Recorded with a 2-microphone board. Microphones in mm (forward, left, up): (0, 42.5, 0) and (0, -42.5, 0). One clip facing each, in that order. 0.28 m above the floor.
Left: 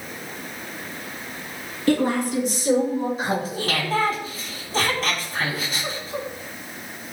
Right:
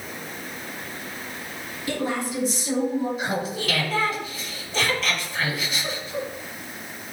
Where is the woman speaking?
65° left (ahead or behind), 3.5 m; by 3.1 s 70° left (ahead or behind), 4.5 m.